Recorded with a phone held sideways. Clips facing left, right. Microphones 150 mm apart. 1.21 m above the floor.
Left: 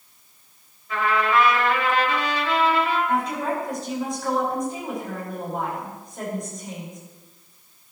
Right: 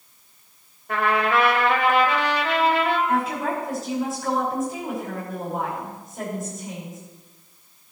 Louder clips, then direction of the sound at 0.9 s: Even; 60° right (ahead or behind).